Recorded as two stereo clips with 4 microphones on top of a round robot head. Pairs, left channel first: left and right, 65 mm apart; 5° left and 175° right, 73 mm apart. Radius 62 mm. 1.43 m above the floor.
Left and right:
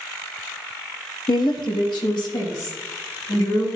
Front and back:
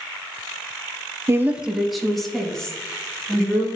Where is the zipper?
I don't hear a zipper.